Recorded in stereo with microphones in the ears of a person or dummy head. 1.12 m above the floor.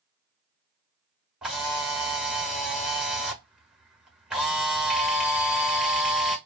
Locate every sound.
1.4 s a camera shutter: 5° right (ahead or behind), 1.0 m